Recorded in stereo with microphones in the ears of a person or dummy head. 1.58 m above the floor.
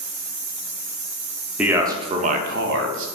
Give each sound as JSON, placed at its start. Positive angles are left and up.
{"t": 1.6, "sound": "a man speaking", "side_deg": -5, "distance_m": 0.7}